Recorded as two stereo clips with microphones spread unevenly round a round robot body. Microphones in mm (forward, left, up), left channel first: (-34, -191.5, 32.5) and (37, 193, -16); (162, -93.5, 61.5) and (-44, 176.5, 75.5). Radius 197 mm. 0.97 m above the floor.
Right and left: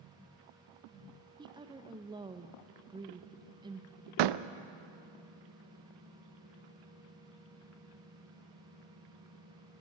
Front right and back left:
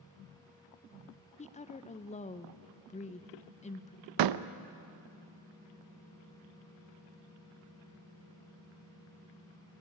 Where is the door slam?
100° left, 0.6 m.